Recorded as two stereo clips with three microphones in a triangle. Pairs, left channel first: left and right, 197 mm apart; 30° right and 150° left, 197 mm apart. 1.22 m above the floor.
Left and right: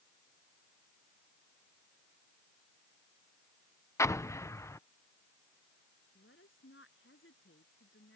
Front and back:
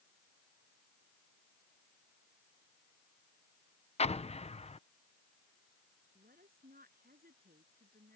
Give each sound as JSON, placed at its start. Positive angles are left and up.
{"t": 4.0, "sound": "an explosion", "azimuth_deg": 15}
{"t": 6.2, "sound": "a woman speaking", "azimuth_deg": 105}